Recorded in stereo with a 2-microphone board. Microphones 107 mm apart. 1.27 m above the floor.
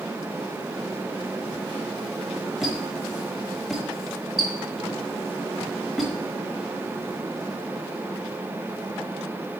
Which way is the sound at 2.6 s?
Centre (ahead or behind).